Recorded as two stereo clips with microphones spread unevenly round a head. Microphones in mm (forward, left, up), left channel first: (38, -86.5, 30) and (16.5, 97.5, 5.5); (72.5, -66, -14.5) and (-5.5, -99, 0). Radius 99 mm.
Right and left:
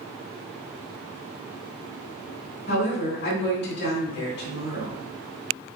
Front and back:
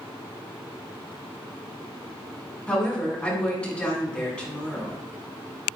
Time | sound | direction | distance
2.7 | a woman speaking | 55° right | 3 m